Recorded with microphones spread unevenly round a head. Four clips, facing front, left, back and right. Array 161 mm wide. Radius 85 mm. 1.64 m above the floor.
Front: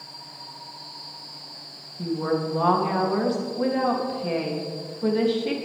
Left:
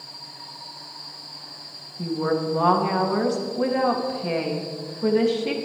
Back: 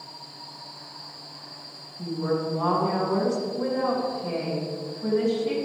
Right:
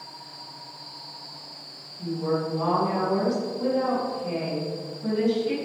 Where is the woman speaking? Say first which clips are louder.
Left 3 dB, front 2 dB; 60° left, 3 m.